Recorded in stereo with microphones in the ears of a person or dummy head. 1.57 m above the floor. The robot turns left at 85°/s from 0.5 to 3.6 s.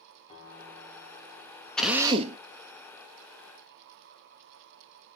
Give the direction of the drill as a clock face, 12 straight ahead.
12 o'clock.